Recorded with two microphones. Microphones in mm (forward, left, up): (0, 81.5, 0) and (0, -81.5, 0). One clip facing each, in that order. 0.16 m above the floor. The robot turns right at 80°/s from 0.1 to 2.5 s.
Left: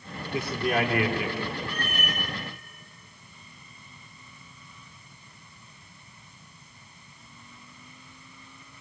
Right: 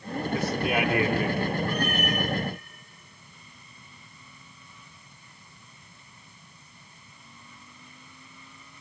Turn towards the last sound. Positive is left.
turn(degrees=50)